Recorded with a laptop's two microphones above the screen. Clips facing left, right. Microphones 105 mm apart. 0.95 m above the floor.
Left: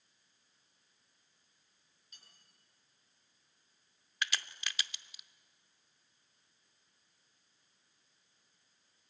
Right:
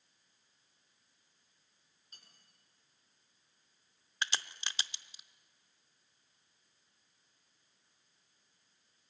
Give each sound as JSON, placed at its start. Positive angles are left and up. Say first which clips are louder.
{"t": 2.1, "sound": "cutlery clinking", "louder": "right 1 dB", "side_deg": -45, "distance_m": 7.0}
{"t": 4.2, "sound": "a crack", "louder": "even", "side_deg": -30, "distance_m": 0.6}